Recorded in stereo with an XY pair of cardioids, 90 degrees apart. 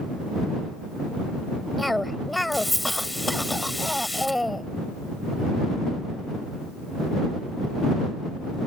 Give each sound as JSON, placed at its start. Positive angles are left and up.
{"t": 1.8, "sound": "a cough", "azimuth_deg": 10}